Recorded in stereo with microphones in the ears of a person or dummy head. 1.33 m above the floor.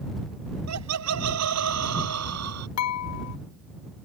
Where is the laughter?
85° right; by 2.7 s 90° right.